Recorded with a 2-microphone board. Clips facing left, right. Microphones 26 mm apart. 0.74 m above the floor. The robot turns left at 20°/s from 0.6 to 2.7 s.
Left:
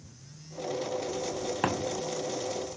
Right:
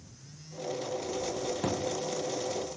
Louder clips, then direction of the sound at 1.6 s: Left 4 dB; 55° left (ahead or behind).